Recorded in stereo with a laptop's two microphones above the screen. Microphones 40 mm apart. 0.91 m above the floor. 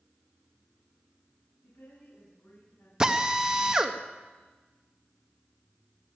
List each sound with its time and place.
1.6 s a woman speaking: 75° left (ahead or behind), 7.5 m
3.0 s a drill: 20° right (ahead or behind), 0.6 m